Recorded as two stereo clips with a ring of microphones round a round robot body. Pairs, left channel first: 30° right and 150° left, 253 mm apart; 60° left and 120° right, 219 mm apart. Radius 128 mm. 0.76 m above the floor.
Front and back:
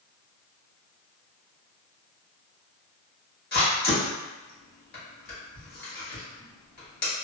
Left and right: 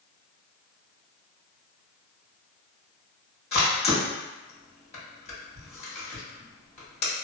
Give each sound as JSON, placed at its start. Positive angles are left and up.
{"t": 3.5, "sound": "a camera shutter", "azimuth_deg": 5, "distance_m": 1.5}